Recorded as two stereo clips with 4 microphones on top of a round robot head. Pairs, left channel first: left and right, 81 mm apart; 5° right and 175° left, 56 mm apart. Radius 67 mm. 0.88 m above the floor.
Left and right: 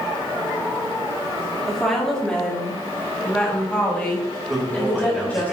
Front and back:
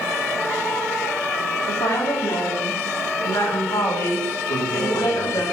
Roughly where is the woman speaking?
Ahead.